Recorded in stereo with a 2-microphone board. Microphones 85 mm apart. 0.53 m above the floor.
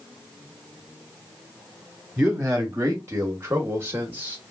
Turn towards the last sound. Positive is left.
turn(degrees=-25)  # may be behind; listen again after turning